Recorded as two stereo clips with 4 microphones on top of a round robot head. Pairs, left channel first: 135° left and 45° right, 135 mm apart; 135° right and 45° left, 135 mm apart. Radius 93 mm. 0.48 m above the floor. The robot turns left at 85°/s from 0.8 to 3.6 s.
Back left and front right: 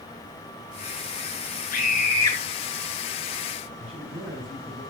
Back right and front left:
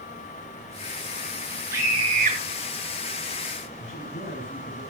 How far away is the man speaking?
About 6 m.